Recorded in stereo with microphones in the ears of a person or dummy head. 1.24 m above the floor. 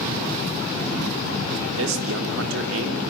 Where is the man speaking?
80° right, 3 m.